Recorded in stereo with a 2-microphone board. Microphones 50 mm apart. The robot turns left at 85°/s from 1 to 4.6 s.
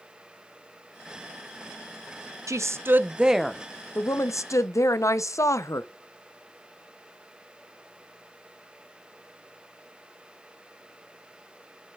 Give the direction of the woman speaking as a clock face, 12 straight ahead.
3 o'clock.